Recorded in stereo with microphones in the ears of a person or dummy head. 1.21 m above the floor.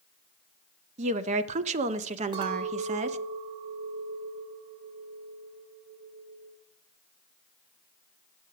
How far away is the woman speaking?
About 0.6 m.